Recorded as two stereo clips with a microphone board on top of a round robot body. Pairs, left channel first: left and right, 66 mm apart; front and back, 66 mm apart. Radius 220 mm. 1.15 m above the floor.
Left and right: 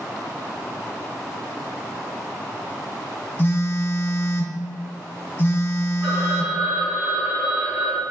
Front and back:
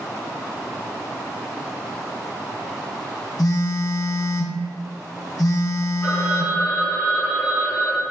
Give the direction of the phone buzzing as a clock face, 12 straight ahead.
11 o'clock.